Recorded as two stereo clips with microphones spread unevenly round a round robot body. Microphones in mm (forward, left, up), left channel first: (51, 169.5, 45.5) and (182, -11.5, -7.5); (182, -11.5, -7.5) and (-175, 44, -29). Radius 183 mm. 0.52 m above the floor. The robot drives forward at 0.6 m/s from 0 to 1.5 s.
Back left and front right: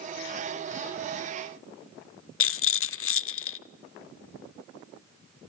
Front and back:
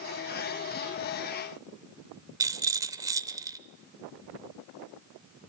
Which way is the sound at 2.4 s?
90° left.